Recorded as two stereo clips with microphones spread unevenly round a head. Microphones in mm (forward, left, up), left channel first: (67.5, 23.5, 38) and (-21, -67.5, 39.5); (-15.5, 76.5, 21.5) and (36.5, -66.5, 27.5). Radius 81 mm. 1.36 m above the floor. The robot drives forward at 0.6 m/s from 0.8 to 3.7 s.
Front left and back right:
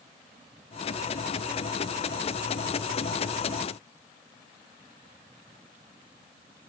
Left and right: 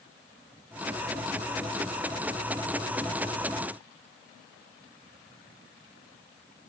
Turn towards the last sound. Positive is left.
No sound to turn to.